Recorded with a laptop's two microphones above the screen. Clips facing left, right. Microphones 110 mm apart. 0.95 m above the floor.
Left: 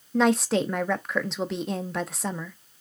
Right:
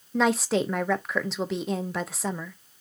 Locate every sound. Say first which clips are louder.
0.1 s a woman speaking: left 2 dB; centre (ahead or behind), 0.5 m